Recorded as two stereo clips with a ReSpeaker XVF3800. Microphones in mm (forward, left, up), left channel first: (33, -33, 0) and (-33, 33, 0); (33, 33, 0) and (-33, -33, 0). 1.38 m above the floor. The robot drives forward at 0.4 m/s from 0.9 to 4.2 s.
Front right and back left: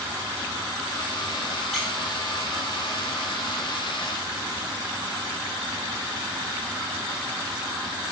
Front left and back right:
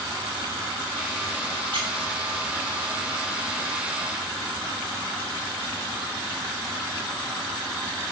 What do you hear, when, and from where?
1.7 s a squeak: 135° right, 2 m